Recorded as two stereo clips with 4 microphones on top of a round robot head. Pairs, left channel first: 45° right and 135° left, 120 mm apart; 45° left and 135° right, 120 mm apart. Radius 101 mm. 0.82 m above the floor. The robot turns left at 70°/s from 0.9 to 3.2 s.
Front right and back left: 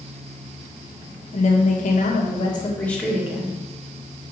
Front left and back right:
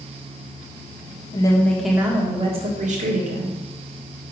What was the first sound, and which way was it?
A woman speaking, 10° right.